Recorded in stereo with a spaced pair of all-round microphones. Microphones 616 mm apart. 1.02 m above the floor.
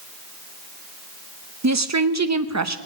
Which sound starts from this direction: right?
A woman speaking, at 1.6 s.